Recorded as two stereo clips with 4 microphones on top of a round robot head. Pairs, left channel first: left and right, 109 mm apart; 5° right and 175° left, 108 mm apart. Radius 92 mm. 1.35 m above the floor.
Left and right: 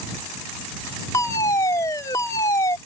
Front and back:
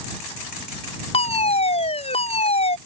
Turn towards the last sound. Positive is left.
turn(degrees=20)